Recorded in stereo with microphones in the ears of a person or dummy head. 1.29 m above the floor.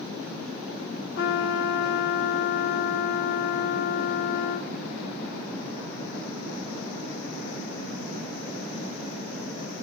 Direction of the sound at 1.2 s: 60° left (ahead or behind).